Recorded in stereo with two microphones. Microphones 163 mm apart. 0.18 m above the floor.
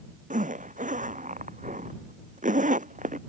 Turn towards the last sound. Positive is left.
turn(degrees=-45)  # may be behind; listen again after turning